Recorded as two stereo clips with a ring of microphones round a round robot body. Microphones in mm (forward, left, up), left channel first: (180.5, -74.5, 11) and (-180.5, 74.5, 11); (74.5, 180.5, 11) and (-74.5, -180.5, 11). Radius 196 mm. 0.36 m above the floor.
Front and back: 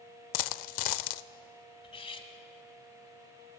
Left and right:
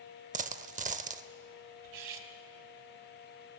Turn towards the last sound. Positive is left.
turn(degrees=-100)